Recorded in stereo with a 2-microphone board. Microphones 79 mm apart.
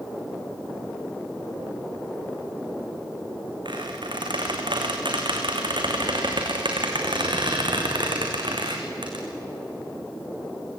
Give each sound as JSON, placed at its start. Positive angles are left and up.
{"t": 3.6, "sound": "a squeak", "side_deg": -80, "distance_m": 4.0}